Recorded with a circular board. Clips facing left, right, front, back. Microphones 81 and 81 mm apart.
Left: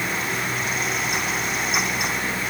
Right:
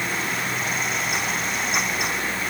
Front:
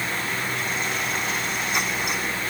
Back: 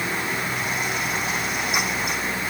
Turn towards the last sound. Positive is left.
No sound to turn to.